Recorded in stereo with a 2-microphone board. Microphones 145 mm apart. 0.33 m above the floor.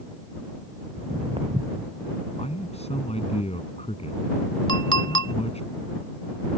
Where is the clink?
35° left (ahead or behind).